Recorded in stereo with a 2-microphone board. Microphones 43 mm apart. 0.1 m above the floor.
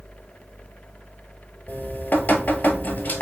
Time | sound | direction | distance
1.7 | dripping | 50° left (ahead or behind) | 0.9 m